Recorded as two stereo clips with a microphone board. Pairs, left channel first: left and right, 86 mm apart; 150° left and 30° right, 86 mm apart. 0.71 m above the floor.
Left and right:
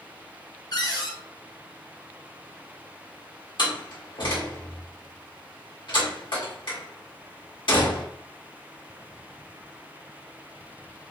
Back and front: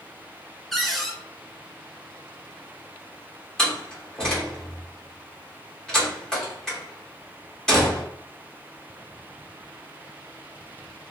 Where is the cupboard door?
60° left, 0.7 m.